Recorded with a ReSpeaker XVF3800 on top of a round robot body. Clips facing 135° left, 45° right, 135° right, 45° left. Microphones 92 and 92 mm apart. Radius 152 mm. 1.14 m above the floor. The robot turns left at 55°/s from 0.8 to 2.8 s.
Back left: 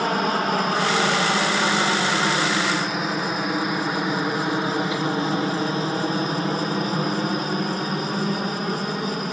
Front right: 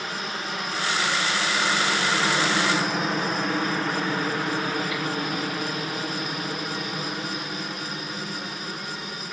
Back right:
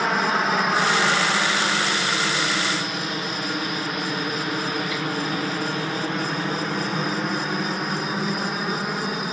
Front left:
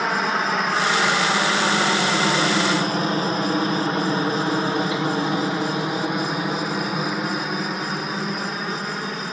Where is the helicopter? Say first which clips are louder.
Back left 10 dB, even; 135° left; by 9.3 s 145° left.